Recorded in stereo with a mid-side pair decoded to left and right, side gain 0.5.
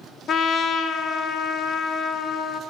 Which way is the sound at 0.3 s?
55° left.